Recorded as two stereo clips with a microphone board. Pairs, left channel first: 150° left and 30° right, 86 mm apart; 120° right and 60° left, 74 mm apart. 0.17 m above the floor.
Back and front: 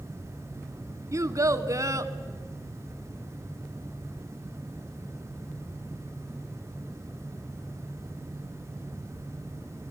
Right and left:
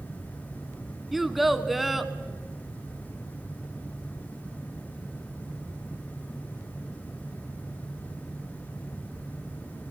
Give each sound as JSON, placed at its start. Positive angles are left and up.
{"t": 1.1, "sound": "a child speaking", "azimuth_deg": -25, "distance_m": 0.9}